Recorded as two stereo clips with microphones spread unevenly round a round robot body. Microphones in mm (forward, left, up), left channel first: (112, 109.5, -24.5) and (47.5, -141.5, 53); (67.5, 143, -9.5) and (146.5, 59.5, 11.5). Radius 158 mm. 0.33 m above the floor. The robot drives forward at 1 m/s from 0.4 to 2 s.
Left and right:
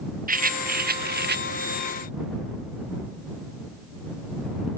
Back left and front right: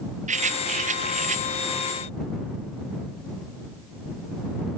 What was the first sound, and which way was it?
A rattle, 50° right.